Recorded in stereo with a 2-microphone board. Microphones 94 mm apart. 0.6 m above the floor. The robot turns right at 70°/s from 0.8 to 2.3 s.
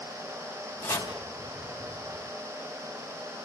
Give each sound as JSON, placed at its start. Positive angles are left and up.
{"t": 0.8, "sound": "chopping", "side_deg": 20, "distance_m": 4.5}